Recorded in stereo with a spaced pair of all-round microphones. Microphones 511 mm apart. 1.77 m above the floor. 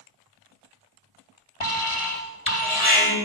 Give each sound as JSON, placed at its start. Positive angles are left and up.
{"t": 1.6, "sound": "an alarm", "side_deg": 80, "distance_m": 3.5}